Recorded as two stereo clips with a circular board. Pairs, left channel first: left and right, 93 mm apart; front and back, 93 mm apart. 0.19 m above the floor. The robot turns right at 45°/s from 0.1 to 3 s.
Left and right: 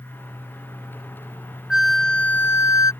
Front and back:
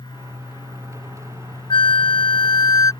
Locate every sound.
1.7 s a flute: 5° right; by 2.9 s 45° left